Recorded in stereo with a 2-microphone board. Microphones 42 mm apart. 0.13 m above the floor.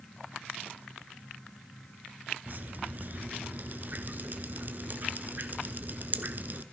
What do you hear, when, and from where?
2.5 s dripping: 45° right (ahead or behind), 1.0 m